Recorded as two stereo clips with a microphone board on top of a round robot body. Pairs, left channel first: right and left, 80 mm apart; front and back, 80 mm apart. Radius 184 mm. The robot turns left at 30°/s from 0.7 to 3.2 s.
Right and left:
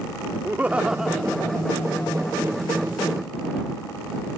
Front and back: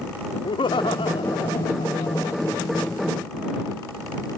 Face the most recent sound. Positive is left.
turn(degrees=-60)